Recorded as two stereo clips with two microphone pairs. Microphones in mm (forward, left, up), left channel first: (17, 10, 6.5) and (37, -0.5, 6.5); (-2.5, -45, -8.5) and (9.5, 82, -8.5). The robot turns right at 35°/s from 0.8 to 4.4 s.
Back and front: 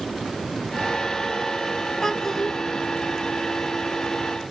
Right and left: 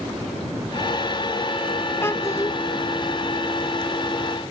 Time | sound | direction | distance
2.0 | a child speaking | 150° right | 0.8 m